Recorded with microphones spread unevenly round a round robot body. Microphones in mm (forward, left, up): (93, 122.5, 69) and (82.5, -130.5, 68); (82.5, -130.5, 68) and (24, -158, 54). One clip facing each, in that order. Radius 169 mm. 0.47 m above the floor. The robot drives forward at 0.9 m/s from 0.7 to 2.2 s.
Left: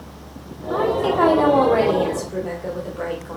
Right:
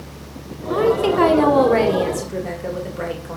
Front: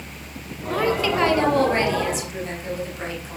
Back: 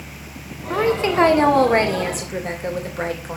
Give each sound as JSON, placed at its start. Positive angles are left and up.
{"t": 0.7, "sound": "a woman speaking", "azimuth_deg": -115, "distance_m": 1.6}